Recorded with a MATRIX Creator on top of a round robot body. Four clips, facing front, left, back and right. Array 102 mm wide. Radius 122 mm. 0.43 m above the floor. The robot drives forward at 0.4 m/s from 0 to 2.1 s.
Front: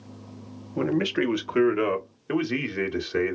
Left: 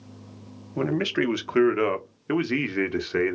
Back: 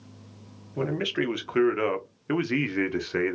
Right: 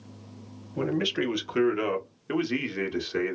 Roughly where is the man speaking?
Ahead left.